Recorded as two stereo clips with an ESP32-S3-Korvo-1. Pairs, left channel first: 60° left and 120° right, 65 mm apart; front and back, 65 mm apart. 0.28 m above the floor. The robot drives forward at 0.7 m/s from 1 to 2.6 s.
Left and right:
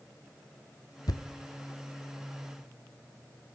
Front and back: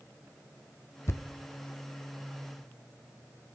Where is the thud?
45° left, 0.9 m; by 1.3 s 50° left, 0.8 m.